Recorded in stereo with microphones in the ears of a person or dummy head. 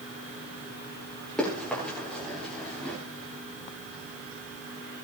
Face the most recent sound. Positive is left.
turn(degrees=5)  # may be behind; listen again after turning